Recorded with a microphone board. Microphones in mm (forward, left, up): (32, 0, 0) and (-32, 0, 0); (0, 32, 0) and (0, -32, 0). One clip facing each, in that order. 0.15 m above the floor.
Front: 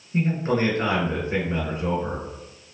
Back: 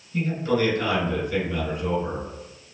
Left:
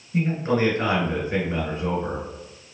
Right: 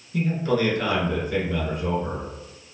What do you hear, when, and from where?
0.1 s a man speaking: 40° left, 1.6 m